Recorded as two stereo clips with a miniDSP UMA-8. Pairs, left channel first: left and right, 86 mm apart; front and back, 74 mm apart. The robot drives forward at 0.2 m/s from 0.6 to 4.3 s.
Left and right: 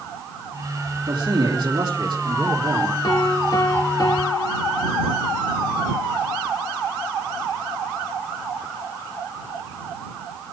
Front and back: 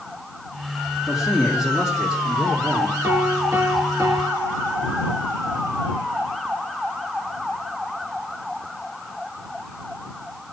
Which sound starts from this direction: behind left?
A piano, at 3.0 s.